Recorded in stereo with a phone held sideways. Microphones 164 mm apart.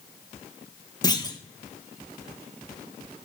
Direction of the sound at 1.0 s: 25° left (ahead or behind).